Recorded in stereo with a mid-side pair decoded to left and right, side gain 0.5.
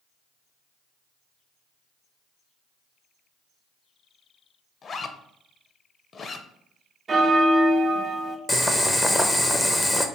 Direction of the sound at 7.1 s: 35° right.